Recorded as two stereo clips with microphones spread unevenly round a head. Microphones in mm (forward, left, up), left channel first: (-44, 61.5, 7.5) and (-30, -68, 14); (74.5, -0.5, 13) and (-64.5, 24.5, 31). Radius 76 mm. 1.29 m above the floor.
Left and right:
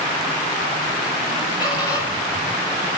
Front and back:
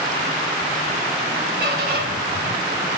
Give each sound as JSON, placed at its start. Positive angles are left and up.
{"t": 1.6, "sound": "a squeak", "azimuth_deg": 155, "distance_m": 6.0}